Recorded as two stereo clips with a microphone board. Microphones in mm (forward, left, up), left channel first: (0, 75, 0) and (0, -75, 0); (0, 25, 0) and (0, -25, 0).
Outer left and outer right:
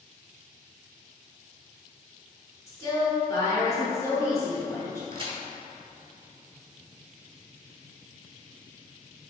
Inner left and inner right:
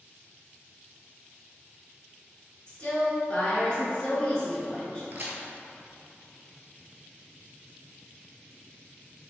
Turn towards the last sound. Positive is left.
turn(degrees=-40)  # may be behind; listen again after turning